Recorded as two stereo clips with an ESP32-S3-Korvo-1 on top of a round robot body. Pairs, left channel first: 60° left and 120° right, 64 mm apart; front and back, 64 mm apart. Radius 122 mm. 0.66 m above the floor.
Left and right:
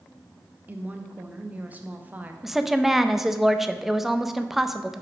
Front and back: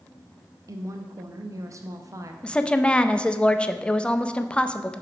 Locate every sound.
0.7 s a woman speaking: straight behind, 0.8 m
2.4 s a woman speaking: 40° right, 0.6 m